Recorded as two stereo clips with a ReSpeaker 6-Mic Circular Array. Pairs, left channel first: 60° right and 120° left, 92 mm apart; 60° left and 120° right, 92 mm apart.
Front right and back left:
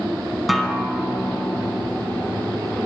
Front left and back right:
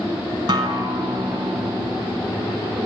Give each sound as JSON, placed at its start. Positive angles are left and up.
{"t": 0.5, "sound": "a guitar", "azimuth_deg": -150, "distance_m": 0.9}